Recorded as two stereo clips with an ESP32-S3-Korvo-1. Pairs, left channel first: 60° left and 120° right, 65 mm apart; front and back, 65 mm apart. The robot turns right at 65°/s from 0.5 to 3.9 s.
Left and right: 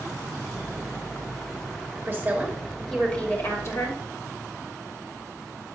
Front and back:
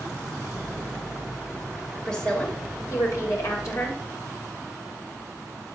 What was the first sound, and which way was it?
A woman speaking, 80° right.